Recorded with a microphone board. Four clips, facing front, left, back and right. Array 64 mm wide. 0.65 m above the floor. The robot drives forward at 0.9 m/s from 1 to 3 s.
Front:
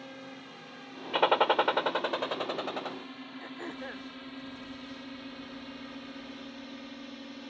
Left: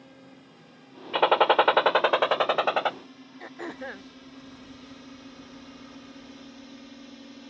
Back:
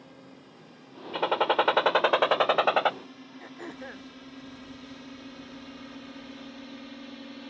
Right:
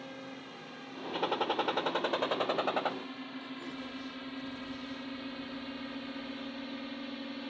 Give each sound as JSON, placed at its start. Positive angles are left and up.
{"t": 0.0, "sound": "a drone", "azimuth_deg": -45}
{"t": 1.1, "sound": "a gunshot", "azimuth_deg": 70}
{"t": 3.4, "sound": "throat clearing", "azimuth_deg": 85}